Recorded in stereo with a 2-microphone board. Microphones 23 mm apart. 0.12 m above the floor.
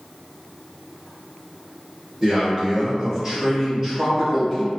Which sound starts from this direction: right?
A man speaking, at 2.2 s.